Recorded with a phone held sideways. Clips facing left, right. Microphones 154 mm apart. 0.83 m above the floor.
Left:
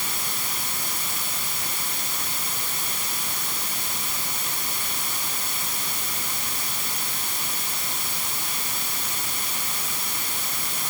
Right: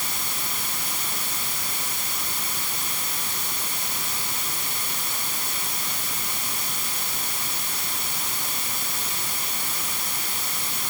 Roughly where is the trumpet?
I don't hear a trumpet.